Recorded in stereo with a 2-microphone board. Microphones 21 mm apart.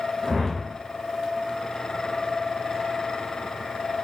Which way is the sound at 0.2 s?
15° right (ahead or behind).